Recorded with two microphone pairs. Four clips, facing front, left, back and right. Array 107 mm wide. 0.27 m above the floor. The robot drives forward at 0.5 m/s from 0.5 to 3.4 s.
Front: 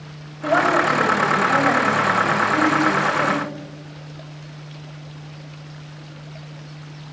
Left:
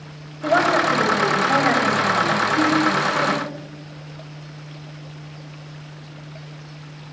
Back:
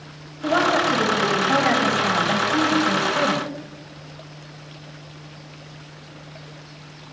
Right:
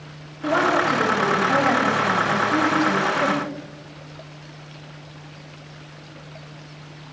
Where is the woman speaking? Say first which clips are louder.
Left 2 dB, front 2 dB; 60° left, 1.3 m; by 3.4 s 155° left, 1.7 m.